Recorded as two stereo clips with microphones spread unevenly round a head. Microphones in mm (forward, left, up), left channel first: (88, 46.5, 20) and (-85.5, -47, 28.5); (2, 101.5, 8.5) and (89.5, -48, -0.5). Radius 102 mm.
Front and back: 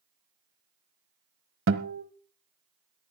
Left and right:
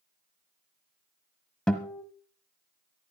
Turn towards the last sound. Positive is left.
turn(degrees=-155)